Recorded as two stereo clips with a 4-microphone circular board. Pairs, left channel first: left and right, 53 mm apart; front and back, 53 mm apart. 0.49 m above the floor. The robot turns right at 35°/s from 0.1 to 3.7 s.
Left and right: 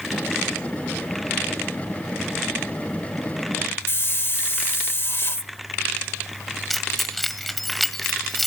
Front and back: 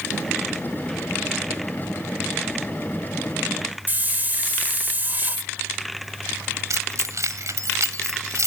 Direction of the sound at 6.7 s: Straight behind.